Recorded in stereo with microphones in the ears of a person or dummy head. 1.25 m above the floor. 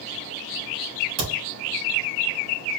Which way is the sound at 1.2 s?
75° right (ahead or behind).